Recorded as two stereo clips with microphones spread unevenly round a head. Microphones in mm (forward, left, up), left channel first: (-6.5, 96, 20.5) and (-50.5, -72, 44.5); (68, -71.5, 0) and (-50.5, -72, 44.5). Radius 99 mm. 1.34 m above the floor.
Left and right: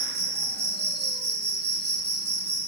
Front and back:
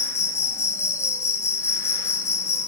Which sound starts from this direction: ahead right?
An insect, at 0.0 s.